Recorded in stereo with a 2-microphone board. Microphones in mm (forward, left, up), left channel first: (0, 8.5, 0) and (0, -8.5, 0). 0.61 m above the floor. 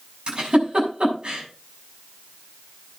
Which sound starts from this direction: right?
A giggle, at 0.3 s.